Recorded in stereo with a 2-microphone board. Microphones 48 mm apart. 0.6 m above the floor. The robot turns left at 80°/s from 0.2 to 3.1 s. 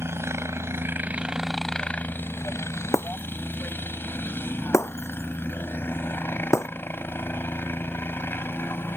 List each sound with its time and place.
0.0 s a helicopter: 70° right; by 9.0 s 55° left
2.9 s breaking glass: 75° left (ahead or behind); by 6.7 s 85° left